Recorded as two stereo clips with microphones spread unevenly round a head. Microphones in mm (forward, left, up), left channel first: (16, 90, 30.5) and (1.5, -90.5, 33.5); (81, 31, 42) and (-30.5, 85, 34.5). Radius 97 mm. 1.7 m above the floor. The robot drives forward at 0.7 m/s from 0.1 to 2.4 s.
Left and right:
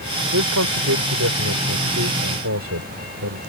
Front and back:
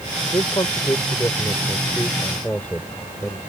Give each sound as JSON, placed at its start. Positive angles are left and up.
{"t": 0.3, "sound": "a man speaking", "azimuth_deg": -95}